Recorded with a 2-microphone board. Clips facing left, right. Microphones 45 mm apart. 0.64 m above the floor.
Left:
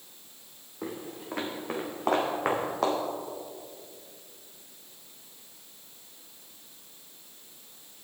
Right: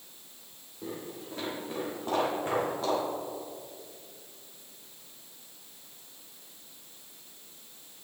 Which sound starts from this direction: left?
Footsteps, at 0.8 s.